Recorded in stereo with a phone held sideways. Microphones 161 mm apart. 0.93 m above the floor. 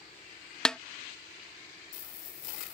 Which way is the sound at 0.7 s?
5° left (ahead or behind).